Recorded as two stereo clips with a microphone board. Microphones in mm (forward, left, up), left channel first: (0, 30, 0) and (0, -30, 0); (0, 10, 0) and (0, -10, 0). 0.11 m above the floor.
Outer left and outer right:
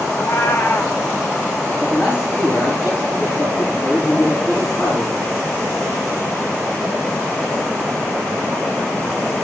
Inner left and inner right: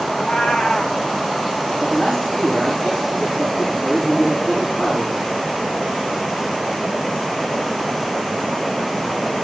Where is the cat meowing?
40° left (ahead or behind), 1.7 m.